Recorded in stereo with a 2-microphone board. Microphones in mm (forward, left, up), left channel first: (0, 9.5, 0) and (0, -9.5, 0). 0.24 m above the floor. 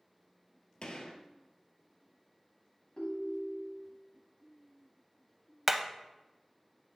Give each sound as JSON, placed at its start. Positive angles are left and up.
{"t": 0.8, "sound": "a gunshot", "side_deg": 60, "distance_m": 0.8}
{"t": 3.0, "sound": "a ringtone", "side_deg": 40, "distance_m": 1.2}
{"t": 5.7, "sound": "hammering", "side_deg": -15, "distance_m": 0.5}